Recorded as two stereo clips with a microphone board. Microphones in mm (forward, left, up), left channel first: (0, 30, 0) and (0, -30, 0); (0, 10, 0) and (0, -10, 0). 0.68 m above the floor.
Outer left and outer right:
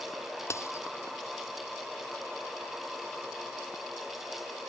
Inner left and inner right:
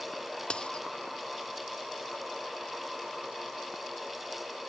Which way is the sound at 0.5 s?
50° left (ahead or behind).